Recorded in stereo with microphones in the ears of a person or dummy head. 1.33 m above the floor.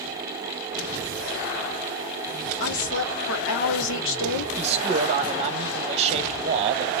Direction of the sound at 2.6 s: 65° left (ahead or behind).